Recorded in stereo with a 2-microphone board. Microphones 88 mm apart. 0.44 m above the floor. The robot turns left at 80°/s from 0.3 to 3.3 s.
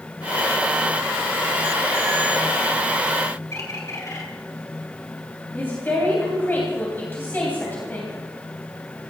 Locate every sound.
3.5 s a bird: 35° left (ahead or behind), 2.5 m
5.5 s a woman speaking: 20° left (ahead or behind), 3 m